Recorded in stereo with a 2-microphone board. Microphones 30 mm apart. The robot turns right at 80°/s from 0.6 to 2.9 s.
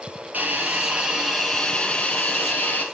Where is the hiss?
65° right, 4.5 m; by 2.9 s 115° left, 4.5 m.